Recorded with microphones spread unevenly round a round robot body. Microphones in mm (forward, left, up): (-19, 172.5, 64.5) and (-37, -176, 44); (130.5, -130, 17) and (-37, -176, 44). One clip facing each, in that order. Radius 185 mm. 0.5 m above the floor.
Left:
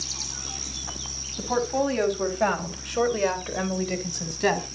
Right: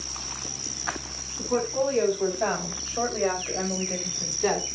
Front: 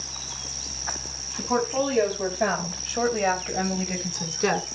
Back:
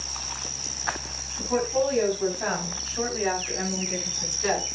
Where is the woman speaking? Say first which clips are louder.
Even, even; 70° left, 4 m; by 4.7 s 30° left, 2 m.